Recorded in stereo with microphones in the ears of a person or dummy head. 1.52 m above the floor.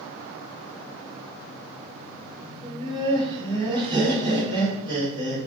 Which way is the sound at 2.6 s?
25° right (ahead or behind).